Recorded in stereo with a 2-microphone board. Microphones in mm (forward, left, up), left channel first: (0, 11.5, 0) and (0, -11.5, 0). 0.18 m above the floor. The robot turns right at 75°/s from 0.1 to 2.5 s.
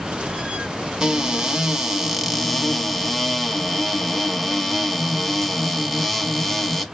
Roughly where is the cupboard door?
Right.